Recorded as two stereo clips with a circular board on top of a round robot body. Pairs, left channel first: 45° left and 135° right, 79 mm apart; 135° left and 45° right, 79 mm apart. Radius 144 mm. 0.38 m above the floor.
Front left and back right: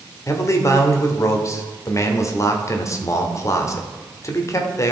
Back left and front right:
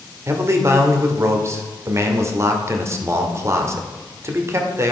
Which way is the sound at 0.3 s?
Straight ahead.